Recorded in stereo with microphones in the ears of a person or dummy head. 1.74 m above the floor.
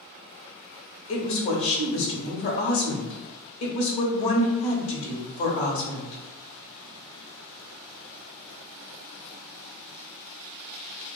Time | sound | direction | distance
1.1 | a woman speaking | 60° left (ahead or behind) | 0.9 m